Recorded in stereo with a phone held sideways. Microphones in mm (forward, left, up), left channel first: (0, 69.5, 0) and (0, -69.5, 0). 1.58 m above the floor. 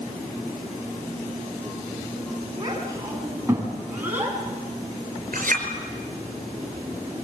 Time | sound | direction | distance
2.6 | a child speaking | 30° right (ahead or behind) | 8 m
5.3 | a clink | 85° right | 5 m